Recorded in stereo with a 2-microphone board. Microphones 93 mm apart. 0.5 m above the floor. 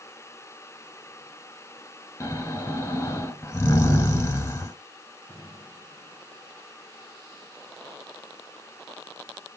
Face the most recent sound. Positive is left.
turn(degrees=30)  # may be behind; listen again after turning